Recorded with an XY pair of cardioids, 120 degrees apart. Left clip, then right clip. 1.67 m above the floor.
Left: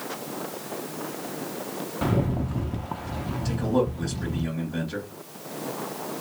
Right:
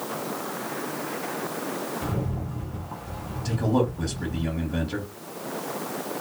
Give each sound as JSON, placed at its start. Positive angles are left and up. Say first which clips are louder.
{"t": 2.0, "sound": "a rattle", "louder": "left 5 dB", "azimuth_deg": 55, "distance_m": 0.6}
{"t": 3.5, "sound": "a man speaking", "louder": "right 1 dB", "azimuth_deg": -15, "distance_m": 1.2}